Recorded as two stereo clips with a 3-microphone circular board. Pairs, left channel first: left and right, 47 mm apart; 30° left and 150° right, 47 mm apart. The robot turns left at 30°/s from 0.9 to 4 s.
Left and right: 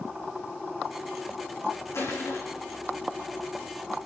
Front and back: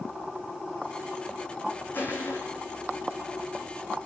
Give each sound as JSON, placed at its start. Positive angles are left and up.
{"t": 1.9, "sound": "crushing", "azimuth_deg": 85, "distance_m": 8.0}